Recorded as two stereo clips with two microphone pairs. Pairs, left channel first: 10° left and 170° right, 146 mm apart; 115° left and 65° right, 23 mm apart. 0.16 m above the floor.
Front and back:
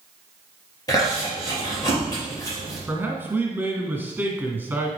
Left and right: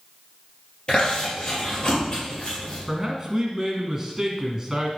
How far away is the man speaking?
About 1.7 m.